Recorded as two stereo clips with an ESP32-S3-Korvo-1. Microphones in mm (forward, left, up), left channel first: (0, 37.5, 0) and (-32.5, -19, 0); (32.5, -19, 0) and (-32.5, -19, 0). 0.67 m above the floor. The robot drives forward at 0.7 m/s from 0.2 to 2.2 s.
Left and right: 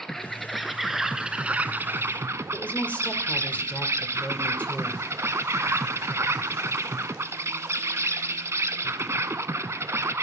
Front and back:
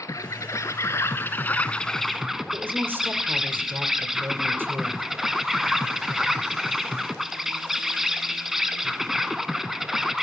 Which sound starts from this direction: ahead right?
An insect, at 0.0 s.